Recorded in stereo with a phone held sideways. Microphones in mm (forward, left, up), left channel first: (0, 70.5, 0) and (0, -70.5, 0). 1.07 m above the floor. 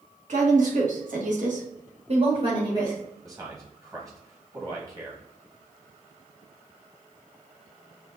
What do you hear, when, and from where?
0.3 s a woman speaking: 60° right (ahead or behind), 2 m; by 3.0 s 20° right (ahead or behind), 1.7 m
3.2 s a man speaking: 25° right (ahead or behind), 1.9 m